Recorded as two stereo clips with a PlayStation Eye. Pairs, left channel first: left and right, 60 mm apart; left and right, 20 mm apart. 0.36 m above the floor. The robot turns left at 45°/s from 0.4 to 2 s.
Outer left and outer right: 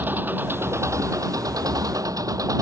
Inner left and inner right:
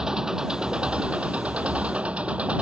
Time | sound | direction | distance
0.0 | an engine running | 30° right | ?